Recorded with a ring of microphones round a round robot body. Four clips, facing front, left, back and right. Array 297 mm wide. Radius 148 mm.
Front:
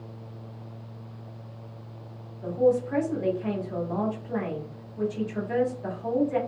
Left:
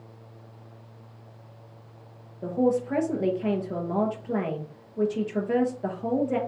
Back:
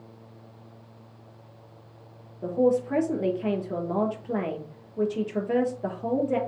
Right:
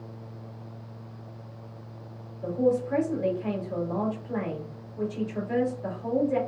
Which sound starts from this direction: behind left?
A man speaking, at 2.4 s.